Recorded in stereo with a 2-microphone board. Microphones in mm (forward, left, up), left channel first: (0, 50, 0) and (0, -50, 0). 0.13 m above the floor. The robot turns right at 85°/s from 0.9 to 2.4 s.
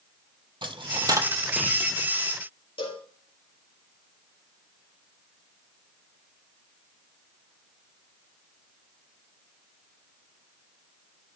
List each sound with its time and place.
0.6 s a dropped coin: 55° right (ahead or behind), 0.8 m; by 2.1 s 45° left (ahead or behind), 0.8 m
2.8 s a cowbell: 65° left (ahead or behind), 3 m